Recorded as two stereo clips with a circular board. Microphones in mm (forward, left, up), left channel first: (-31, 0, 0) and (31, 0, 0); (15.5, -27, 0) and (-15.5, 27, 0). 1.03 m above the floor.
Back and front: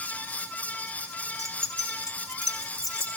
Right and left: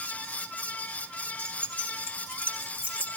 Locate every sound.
1.4 s keys jangling: straight behind, 5.5 m; by 3.1 s 175° right, 7 m